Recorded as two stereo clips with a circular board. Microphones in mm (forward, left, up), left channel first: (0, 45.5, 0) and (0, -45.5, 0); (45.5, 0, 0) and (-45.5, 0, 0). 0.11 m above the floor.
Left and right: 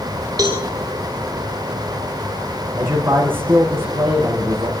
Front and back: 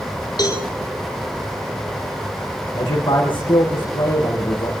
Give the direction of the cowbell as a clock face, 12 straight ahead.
1 o'clock.